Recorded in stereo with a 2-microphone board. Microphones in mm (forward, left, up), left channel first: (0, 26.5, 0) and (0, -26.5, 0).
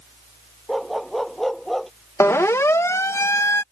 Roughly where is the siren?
Left.